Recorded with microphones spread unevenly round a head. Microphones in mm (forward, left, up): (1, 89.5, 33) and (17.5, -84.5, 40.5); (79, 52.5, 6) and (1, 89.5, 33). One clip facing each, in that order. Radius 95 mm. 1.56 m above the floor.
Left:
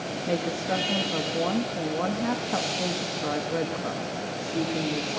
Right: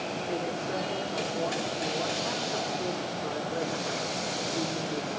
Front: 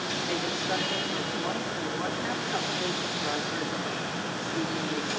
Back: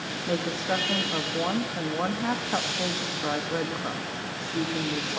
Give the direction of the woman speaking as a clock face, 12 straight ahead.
8 o'clock.